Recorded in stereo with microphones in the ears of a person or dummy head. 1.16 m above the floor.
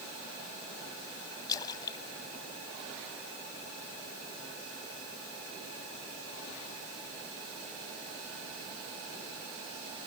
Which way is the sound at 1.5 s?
20° left (ahead or behind).